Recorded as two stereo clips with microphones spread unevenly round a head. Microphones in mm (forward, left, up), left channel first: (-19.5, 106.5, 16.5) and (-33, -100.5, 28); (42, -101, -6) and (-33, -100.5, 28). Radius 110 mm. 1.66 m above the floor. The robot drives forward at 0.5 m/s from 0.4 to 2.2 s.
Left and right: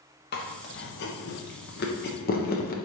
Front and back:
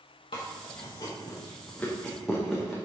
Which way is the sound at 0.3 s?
45° left.